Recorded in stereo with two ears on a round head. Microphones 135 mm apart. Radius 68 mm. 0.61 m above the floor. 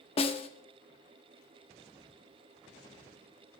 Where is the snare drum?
40° left (ahead or behind), 0.8 m.